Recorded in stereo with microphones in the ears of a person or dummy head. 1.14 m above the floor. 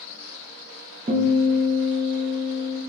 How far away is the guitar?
About 0.8 m.